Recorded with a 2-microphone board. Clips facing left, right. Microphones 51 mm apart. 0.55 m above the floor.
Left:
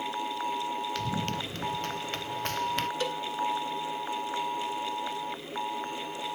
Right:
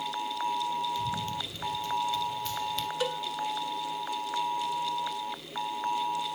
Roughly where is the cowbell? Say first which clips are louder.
Even; centre.